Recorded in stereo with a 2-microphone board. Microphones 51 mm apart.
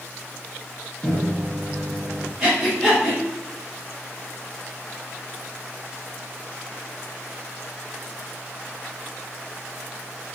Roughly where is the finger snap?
No finger snap in this recording.